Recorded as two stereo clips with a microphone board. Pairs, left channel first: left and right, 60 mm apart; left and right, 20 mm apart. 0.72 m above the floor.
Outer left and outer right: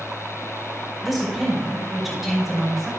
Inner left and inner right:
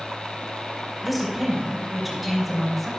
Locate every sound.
1.0 s a woman speaking: centre (ahead or behind), 5.5 m